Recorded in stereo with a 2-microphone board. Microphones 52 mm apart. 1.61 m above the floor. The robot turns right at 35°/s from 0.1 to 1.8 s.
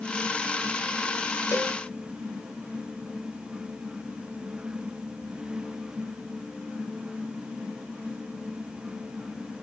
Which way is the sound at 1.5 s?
70° left (ahead or behind).